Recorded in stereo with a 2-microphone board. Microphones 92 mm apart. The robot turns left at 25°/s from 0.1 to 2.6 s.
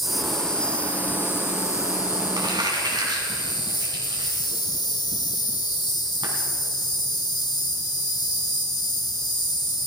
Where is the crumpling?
50° right (ahead or behind), 3 m; by 6.3 s 60° right (ahead or behind), 3 m.